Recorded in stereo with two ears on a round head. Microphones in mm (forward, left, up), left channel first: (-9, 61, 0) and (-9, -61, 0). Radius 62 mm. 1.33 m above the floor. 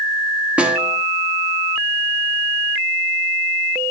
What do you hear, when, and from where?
0.6 s a snare drum: 10° right (ahead or behind), 1.7 m